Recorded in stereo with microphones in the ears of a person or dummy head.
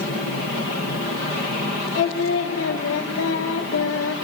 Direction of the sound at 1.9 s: 75° left (ahead or behind).